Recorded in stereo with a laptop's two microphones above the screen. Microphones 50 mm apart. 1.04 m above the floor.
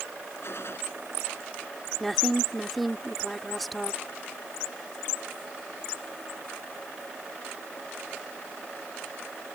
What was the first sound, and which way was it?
A gunshot, 55° left (ahead or behind).